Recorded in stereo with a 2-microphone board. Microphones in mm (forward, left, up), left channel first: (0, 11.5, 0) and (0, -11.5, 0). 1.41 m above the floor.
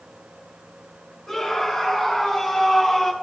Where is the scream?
30° left (ahead or behind), 3 m; by 3.1 s 25° left (ahead or behind), 1.9 m.